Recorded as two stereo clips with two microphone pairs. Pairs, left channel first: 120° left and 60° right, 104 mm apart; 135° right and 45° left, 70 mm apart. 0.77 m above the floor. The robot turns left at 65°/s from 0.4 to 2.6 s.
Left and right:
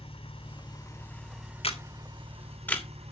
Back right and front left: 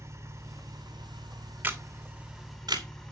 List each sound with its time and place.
0.0 s an engine running: 90° left, 4 m; by 3.1 s 50° right, 4 m
1.6 s a camera shutter: 110° left, 2.5 m; by 2.9 s 50° left, 2.5 m